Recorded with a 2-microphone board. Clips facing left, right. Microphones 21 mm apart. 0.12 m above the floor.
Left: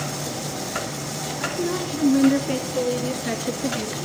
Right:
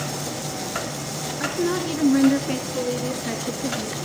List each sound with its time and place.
1.4 s a woman speaking: 30° right (ahead or behind), 1.4 m; by 4.0 s 20° left (ahead or behind), 2.0 m